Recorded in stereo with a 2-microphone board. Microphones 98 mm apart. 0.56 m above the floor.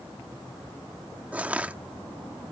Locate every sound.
1.3 s crushing: 15° right (ahead or behind)